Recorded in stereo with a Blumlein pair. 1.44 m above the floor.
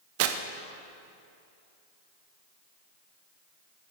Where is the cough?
No cough in this recording.